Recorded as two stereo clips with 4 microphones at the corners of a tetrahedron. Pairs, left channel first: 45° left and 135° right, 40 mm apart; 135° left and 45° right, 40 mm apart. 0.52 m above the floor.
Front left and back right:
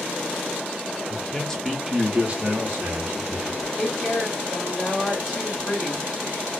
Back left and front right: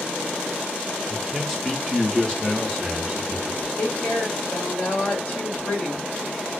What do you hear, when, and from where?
1.1 s a man speaking: 35° left, 0.7 m; by 3.7 s 165° right, 1.2 m
3.8 s a woman speaking: 120° left, 1.8 m